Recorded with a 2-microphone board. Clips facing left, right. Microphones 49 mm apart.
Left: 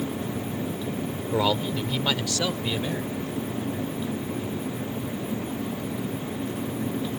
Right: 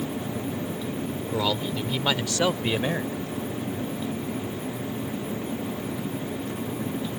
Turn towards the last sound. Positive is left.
turn(degrees=-50)  # may be behind; listen again after turning